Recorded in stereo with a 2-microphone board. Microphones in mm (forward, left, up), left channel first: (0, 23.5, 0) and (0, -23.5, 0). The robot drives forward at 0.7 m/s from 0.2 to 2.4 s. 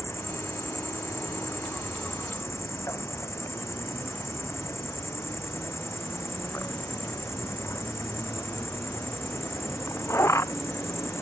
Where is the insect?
65° left (ahead or behind); by 11.2 s 75° left (ahead or behind).